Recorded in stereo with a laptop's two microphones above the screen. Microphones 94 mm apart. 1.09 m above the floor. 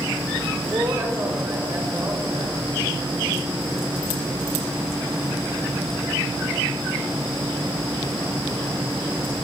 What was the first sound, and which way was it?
A woman speaking, 30° right (ahead or behind).